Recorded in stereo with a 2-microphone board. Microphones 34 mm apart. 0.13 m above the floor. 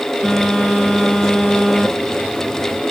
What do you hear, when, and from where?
0.2 s a phone buzzing: 15° left (ahead or behind), 3.5 m